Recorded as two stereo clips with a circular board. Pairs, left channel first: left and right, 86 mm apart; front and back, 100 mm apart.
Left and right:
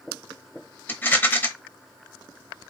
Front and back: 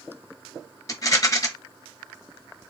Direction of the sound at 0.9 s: 30° left.